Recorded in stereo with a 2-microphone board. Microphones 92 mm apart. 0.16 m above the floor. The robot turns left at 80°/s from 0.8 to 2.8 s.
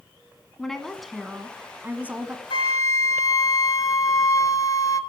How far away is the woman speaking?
About 1.1 m.